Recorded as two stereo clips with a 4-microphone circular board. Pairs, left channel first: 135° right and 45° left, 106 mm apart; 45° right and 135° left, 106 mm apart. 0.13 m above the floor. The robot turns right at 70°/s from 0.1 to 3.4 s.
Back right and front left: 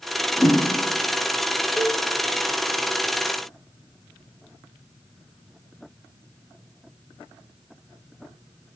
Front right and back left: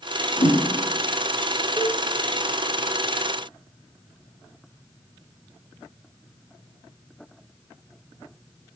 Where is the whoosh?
60° right, 5 m; by 0.6 s 40° right, 5 m.